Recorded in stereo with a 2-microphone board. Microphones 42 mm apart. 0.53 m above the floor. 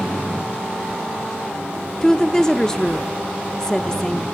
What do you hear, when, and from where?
2.0 s a woman speaking: 15° left (ahead or behind), 0.7 m